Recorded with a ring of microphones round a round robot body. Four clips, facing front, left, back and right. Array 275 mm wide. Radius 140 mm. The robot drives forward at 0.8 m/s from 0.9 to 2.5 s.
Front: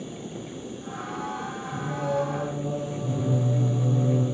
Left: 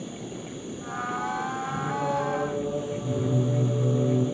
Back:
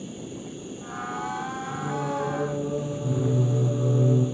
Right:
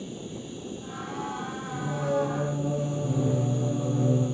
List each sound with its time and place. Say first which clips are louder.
0.0 s an insect: left 1 dB, even; 150° right, 2.5 m; by 4.3 s 160° right, 4 m
1.7 s singing: right 1 dB, front 2 dB; 165° left, 4 m